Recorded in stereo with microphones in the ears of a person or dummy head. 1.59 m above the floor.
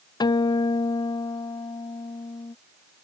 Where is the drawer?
I don't hear a drawer.